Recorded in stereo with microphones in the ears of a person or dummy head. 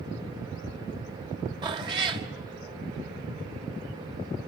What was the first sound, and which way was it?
A cat meowing, 30° right (ahead or behind).